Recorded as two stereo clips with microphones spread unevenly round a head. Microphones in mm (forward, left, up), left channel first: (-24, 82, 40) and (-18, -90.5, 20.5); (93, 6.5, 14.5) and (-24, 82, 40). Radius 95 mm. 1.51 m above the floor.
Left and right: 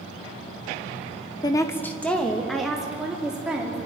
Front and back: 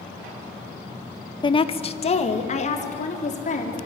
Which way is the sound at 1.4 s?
20° left.